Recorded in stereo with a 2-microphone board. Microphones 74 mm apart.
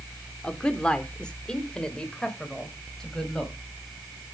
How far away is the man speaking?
About 0.9 m.